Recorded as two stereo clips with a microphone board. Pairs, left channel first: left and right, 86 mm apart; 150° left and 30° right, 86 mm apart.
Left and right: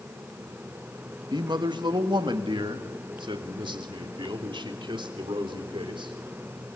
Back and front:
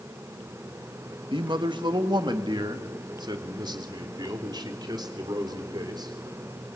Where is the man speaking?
55° right, 1.3 m; by 6.1 s 70° right, 3.5 m.